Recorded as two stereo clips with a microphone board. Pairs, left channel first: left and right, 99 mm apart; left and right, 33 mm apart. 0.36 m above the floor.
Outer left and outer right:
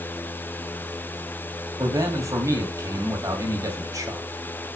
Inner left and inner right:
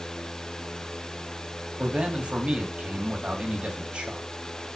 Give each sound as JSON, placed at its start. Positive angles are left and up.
{"t": 1.8, "sound": "a man speaking", "side_deg": -35, "distance_m": 1.7}